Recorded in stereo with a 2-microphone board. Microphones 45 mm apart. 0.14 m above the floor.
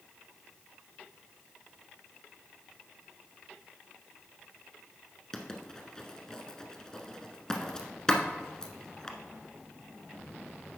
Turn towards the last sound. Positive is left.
turn(degrees=15)  # may be behind; listen again after turning